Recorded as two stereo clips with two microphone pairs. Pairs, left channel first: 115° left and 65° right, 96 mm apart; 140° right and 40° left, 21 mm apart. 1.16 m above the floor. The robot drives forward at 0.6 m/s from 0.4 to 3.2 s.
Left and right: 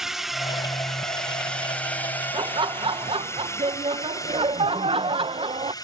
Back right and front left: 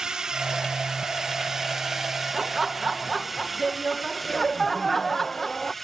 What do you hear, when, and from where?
0.0 s a drone: 20° left; by 5.8 s 140° left
2.3 s laughter: 30° right; by 5.7 s 60° right